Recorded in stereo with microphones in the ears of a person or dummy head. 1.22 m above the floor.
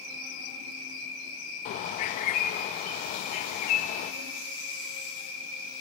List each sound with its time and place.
0.0 s an insect: 45° right (ahead or behind), 4 m
1.6 s a bird: 45° left (ahead or behind), 0.5 m